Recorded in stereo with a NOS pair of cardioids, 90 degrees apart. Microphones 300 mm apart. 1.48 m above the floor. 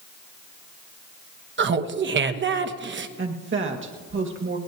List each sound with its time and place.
1.6 s laughter: 40° right, 1.2 m
3.2 s a woman speaking: 40° right, 2.0 m